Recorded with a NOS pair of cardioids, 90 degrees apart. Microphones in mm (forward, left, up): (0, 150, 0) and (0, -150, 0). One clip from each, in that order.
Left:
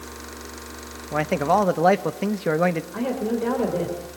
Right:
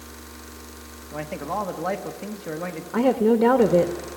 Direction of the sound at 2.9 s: 60° right.